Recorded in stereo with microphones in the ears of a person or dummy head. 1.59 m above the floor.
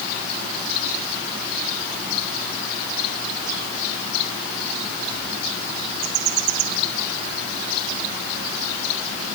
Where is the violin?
I don't hear a violin.